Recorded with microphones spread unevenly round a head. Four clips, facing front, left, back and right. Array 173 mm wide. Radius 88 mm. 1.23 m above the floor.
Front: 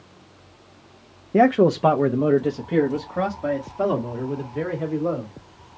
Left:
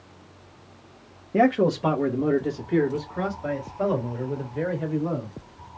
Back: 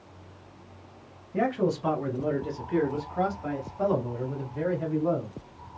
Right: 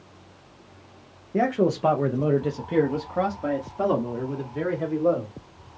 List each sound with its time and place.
1.3 s a man speaking: 10° left, 0.6 m; by 5.3 s 50° right, 2.5 m